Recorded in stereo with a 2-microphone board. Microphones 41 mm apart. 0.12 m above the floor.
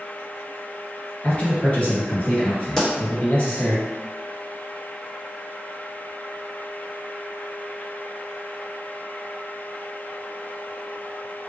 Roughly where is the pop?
Centre.